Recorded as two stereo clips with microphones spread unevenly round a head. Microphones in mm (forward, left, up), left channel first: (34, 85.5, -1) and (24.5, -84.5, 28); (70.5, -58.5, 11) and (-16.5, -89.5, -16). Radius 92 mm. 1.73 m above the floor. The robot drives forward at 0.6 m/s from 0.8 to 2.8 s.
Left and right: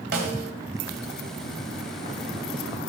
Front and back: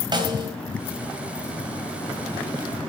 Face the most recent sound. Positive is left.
turn(degrees=-135)